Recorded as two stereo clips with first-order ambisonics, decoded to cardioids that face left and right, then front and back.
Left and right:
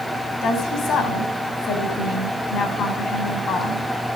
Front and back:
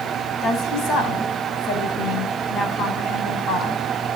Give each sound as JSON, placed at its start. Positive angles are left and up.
{"t": 0.4, "sound": "a woman speaking", "azimuth_deg": 45, "distance_m": 4.5}